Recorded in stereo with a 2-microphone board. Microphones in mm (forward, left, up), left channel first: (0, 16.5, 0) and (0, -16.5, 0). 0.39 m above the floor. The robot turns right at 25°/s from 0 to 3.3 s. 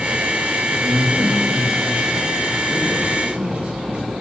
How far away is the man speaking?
About 5.5 m.